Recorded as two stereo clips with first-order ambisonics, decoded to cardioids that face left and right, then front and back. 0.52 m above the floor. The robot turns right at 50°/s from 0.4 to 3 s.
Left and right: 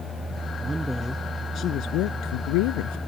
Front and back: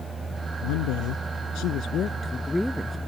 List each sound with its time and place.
0.6 s a woman speaking: 15° right; by 3.0 s 105° left